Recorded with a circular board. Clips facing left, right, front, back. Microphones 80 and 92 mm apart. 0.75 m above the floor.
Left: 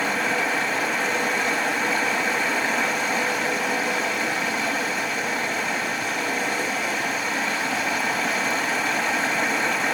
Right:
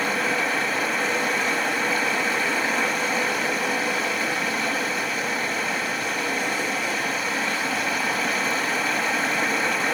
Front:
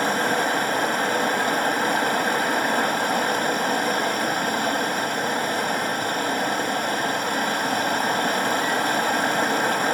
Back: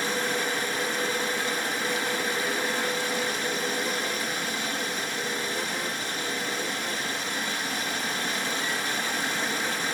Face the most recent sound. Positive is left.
turn(degrees=0)